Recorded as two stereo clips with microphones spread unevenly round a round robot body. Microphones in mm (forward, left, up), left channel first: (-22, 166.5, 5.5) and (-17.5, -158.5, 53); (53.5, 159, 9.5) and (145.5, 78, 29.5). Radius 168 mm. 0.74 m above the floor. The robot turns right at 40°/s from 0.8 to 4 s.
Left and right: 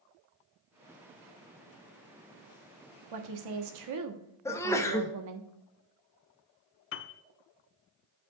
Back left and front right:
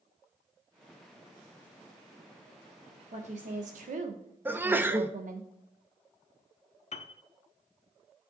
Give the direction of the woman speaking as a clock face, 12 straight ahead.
3 o'clock.